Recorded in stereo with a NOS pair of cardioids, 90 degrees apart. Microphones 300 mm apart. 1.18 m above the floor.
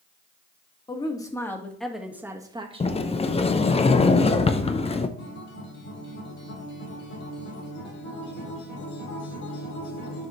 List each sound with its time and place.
0.9 s a woman speaking: 15° left, 1.8 m; by 3.1 s 25° right, 1.4 m
2.8 s a sliding door: 20° left, 0.7 m
5.2 s a guitar: 60° left, 3.5 m